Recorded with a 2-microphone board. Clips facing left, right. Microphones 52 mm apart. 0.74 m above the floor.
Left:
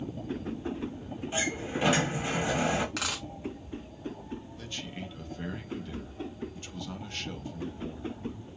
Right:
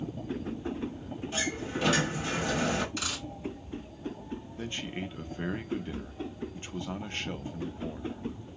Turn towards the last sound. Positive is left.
turn(degrees=-30)  # may be behind; listen again after turning